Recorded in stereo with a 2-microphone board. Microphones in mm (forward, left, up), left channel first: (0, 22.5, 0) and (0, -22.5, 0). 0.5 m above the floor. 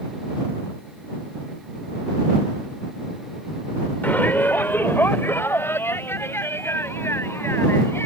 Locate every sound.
4.0 s a shout: 45° left (ahead or behind); by 8.1 s 70° left (ahead or behind)